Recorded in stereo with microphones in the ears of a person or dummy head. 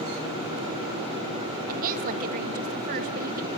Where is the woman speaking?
50° right (ahead or behind), 2.5 m.